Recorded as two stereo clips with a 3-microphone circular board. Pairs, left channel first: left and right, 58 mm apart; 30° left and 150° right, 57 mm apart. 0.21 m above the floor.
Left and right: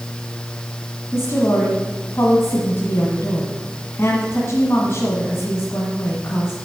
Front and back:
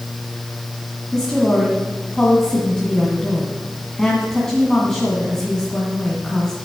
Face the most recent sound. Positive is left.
turn(degrees=105)